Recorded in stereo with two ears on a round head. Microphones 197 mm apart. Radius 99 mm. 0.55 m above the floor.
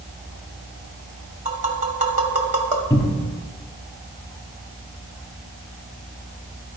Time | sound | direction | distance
1.4 | tapping | 35° right (ahead or behind) | 1.1 m
2.9 | a cupboard door | 15° left (ahead or behind) | 1.0 m